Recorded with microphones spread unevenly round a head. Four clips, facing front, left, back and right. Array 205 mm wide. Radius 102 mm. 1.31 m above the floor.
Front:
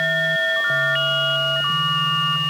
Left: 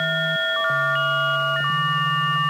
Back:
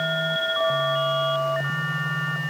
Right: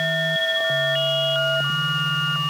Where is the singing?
I don't hear singing.